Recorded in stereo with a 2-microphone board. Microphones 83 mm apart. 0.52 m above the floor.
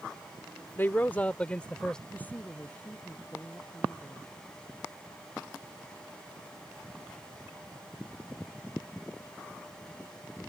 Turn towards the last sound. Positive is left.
turn(degrees=20)  # may be behind; listen again after turning